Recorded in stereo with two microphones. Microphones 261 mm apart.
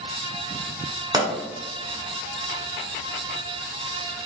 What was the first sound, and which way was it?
A pop, 15° right (ahead or behind).